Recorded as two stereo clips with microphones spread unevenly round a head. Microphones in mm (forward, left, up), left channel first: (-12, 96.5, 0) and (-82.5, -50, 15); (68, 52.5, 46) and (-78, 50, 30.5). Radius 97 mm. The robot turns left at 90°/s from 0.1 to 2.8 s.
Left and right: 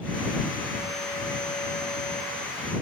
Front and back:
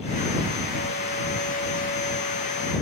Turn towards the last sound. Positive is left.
No sound to turn to.